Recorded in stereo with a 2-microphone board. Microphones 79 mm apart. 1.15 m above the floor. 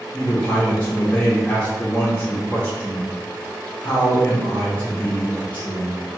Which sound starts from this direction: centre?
A man speaking, at 0.1 s.